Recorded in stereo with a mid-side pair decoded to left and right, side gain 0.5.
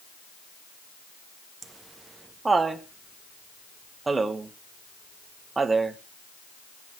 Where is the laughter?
25° right, 1.6 m.